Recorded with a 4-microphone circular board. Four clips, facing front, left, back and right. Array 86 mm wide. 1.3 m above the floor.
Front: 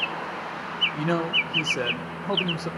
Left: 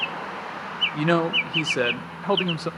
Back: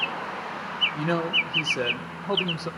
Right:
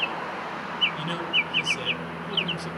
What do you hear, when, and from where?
0.9 s a man speaking: 85° left, 0.6 m